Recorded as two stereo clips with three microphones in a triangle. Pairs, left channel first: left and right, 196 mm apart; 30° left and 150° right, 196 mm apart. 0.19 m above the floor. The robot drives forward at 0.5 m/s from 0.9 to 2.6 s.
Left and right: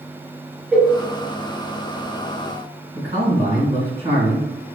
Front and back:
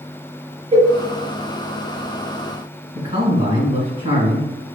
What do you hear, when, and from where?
0.7 s a cowbell: 170° right, 0.5 m
3.0 s a man speaking: 125° right, 1.9 m